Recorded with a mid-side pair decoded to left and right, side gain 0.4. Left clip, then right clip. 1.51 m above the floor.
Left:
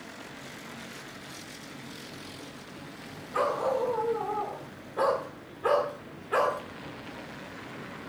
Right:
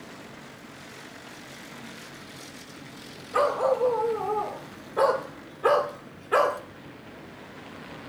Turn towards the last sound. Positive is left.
turn(degrees=-45)